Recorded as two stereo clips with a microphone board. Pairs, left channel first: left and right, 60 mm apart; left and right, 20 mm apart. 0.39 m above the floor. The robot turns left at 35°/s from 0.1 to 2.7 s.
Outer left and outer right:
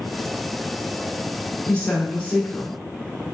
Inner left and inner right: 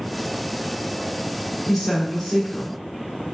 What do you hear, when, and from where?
1.7 s a woman speaking: 20° left (ahead or behind), 0.8 m